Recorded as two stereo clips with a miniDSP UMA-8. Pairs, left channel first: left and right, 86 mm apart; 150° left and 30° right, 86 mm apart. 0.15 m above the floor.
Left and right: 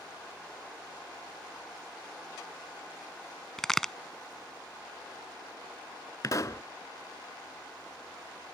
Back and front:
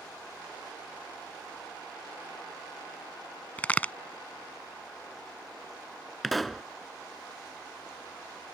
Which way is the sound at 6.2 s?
65° left.